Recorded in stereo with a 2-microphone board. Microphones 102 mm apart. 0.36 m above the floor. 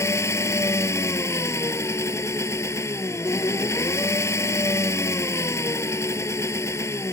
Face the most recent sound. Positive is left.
turn(degrees=25)  # may be behind; listen again after turning